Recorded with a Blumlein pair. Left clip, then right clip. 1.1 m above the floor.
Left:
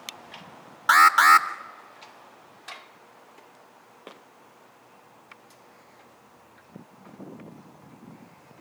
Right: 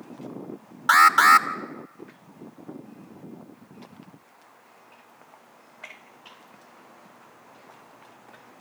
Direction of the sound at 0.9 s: 5° left.